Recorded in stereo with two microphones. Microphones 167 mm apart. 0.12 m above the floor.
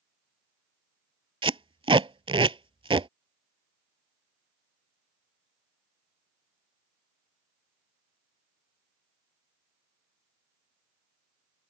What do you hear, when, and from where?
1.4 s tape being pulled: 30° right (ahead or behind)